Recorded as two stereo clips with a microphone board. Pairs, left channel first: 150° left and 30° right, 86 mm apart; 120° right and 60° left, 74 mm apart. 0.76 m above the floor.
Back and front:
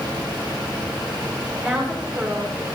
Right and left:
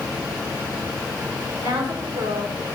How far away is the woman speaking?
About 2.5 m.